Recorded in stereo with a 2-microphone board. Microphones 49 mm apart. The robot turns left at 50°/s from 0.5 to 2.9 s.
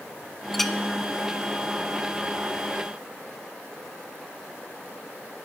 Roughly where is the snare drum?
I don't hear a snare drum.